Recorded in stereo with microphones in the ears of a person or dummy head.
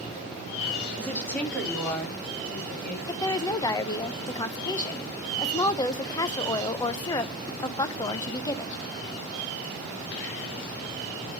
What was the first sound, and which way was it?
A woman speaking, 5° left (ahead or behind).